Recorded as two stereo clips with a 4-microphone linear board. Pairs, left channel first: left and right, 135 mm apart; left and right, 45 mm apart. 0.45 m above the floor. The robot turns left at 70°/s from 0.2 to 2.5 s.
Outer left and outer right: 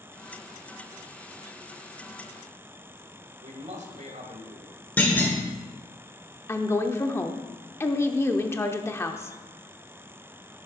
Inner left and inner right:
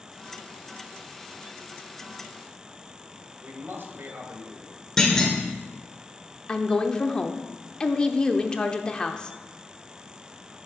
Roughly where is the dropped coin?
No dropped coin in this recording.